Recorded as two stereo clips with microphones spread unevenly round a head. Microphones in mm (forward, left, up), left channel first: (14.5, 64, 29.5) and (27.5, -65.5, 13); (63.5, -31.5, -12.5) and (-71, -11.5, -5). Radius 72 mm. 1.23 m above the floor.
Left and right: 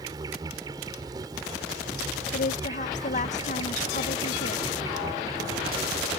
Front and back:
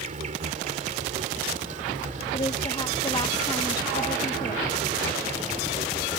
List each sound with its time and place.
0.0 s an insect: 155° right
2.3 s a woman speaking: 60° left